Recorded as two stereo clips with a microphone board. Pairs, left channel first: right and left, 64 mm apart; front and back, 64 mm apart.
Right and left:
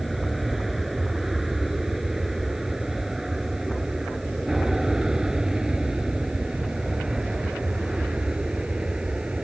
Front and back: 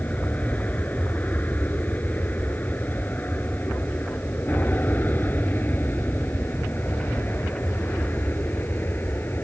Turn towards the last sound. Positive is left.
turn(degrees=20)